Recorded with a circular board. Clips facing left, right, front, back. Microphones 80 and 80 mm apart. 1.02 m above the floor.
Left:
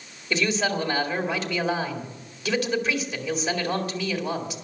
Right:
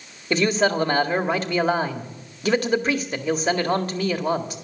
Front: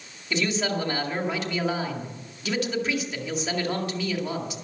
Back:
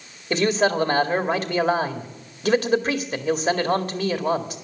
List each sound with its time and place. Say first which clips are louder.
0.3 s a man speaking: right 5 dB, back 6 dB; 135° right, 1.9 m